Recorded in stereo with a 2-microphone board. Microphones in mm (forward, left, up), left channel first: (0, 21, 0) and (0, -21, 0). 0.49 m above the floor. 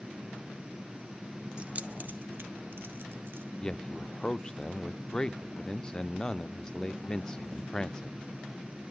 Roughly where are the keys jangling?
Right.